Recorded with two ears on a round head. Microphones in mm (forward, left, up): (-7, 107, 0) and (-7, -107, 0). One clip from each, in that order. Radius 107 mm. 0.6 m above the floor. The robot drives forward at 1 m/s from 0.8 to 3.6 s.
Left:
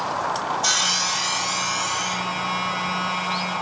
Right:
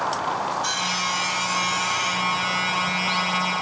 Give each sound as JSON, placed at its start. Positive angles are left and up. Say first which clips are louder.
{"t": 0.6, "sound": "sawing", "louder": "left 7 dB", "side_deg": 30}